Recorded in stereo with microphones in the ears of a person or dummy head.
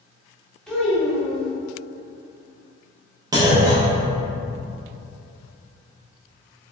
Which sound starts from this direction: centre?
A child speaking, at 0.7 s.